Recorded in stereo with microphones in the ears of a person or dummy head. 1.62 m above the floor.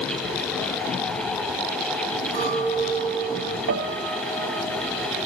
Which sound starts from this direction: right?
A piano, at 3.7 s.